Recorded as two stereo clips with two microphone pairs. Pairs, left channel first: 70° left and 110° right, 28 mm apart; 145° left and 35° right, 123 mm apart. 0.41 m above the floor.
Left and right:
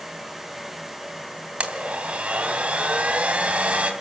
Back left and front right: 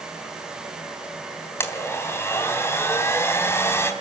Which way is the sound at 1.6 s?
145° right.